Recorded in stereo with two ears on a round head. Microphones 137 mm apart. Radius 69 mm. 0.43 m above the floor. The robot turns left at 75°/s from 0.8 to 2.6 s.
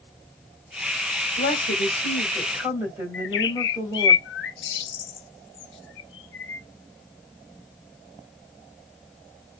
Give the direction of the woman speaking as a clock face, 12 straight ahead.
9 o'clock.